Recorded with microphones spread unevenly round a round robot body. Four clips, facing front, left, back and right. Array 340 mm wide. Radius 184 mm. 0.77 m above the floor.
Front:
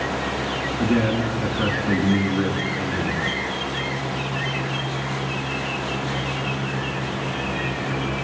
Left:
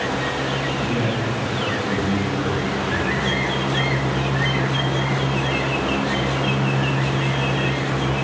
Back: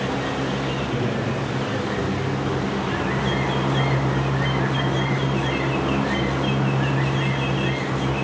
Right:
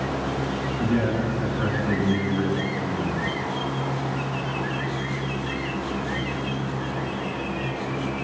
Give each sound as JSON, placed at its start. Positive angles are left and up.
{"t": 0.8, "sound": "a man speaking", "azimuth_deg": -5, "distance_m": 7.5}